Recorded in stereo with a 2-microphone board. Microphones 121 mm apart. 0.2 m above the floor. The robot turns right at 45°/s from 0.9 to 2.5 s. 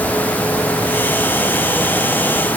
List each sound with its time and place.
Only background noise.